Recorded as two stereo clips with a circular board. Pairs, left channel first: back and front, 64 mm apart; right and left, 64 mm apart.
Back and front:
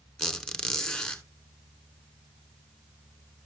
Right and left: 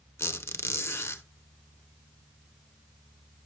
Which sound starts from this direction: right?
A squeak, at 0.2 s.